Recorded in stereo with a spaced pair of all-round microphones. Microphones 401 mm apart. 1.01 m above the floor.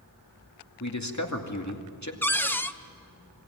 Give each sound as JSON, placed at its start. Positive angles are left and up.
{"t": 0.8, "sound": "a man speaking", "side_deg": 45, "distance_m": 2.5}
{"t": 2.2, "sound": "a cupboard door", "side_deg": 5, "distance_m": 0.7}